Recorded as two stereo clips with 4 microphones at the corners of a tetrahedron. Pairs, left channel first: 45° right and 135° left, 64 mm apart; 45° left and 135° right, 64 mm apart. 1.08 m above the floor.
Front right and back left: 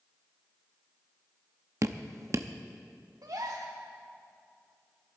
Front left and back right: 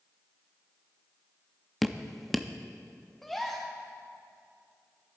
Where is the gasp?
130° left, 1.6 m.